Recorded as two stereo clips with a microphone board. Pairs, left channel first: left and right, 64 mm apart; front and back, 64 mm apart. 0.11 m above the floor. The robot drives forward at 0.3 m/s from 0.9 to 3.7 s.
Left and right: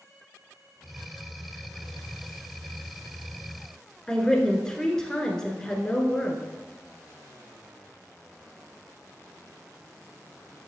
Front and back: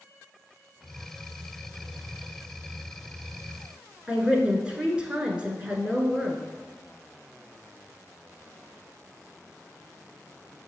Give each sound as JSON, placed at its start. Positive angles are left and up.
{"t": 4.1, "sound": "a woman speaking", "azimuth_deg": 150, "distance_m": 1.1}